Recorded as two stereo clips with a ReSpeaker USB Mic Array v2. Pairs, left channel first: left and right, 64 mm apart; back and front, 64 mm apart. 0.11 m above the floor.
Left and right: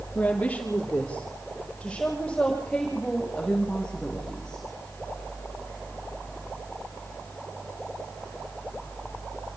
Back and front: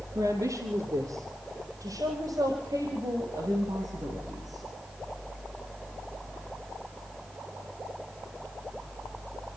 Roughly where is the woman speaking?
Ahead left.